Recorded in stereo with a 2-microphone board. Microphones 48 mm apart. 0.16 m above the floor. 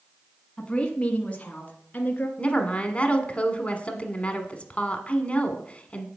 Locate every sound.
0.6 s a woman speaking: 15° left (ahead or behind), 1.4 m; by 2.3 s 30° left (ahead or behind), 2 m
2.4 s a woman speaking: 25° left (ahead or behind), 1.2 m